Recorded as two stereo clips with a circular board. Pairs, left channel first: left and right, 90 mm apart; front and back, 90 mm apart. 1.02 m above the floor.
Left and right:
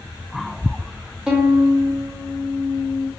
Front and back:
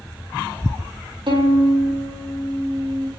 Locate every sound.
1.3 s a violin: 170° right, 0.6 m